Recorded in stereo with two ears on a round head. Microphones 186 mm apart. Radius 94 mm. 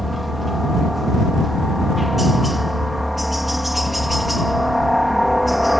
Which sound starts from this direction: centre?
A helicopter, at 0.0 s.